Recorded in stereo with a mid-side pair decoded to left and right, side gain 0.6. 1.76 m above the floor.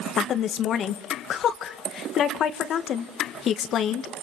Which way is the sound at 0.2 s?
50° left.